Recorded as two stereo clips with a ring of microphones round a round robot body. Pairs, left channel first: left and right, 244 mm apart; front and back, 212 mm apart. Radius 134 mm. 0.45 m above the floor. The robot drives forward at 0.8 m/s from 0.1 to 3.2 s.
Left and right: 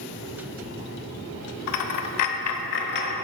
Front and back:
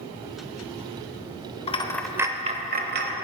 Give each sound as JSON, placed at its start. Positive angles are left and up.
{"t": 1.7, "sound": "a dropped coin", "azimuth_deg": 65, "distance_m": 0.7}